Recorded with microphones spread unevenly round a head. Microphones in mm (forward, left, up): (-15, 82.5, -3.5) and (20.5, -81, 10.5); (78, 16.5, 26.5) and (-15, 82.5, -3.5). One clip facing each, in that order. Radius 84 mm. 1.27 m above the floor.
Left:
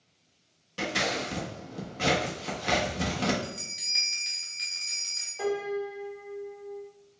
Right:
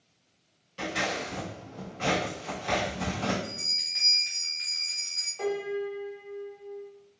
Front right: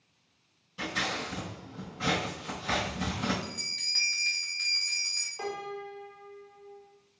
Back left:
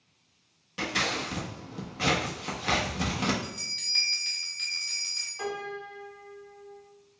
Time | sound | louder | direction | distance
0.8 | scissors | left 1 dB, back left 3 dB | 130° left | 1.2 m
3.4 | a bell | left 1 dB, back left 1 dB | 60° left | 1.3 m
5.4 | a piano | even, back left 1 dB | 20° left | 1.7 m